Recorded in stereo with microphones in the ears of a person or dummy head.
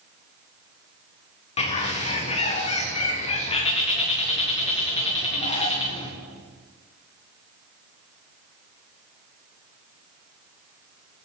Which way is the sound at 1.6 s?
35° left (ahead or behind).